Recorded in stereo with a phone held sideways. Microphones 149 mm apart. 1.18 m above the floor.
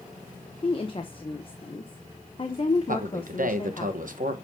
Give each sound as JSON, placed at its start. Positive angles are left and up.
{"t": 0.6, "sound": "a woman speaking", "side_deg": 40, "distance_m": 0.7}
{"t": 2.9, "sound": "a man speaking", "side_deg": -65, "distance_m": 1.0}